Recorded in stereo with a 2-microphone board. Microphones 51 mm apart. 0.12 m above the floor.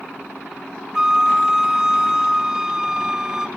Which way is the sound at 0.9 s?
10° right (ahead or behind).